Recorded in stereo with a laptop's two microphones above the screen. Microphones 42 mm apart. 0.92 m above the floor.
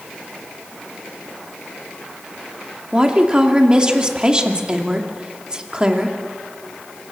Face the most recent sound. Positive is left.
turn(degrees=-20)  # may be behind; listen again after turning